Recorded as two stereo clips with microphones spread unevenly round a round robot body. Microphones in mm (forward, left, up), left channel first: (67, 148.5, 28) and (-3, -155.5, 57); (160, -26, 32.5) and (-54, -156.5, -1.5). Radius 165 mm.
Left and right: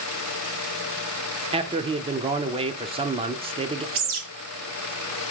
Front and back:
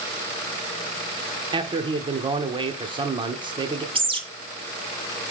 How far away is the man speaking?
About 0.8 m.